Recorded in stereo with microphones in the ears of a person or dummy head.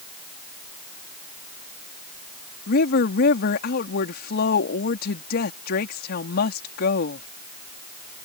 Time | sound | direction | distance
2.7 | a woman speaking | 60° left (ahead or behind) | ?